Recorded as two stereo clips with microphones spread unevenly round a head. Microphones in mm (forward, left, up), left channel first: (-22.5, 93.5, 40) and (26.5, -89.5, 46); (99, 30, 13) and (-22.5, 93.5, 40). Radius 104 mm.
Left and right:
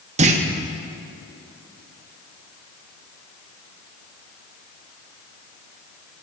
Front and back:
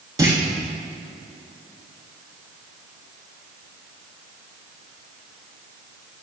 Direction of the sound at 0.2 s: 130° right.